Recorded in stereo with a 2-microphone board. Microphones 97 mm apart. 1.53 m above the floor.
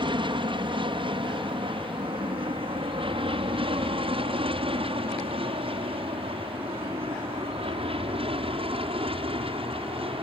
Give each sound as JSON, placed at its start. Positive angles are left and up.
{"t": 0.0, "sound": "an aircraft", "side_deg": -55}